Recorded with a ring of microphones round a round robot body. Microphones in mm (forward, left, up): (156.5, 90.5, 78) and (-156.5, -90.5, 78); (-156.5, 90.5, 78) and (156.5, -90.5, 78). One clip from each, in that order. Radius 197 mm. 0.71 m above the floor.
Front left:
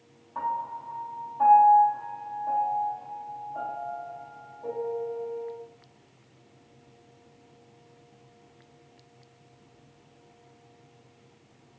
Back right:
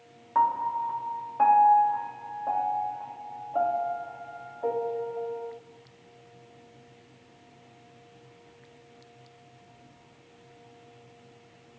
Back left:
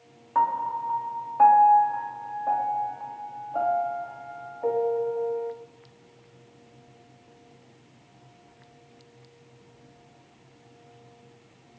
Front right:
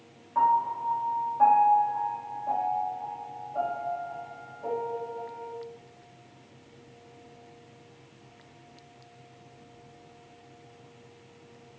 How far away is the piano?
About 0.7 m.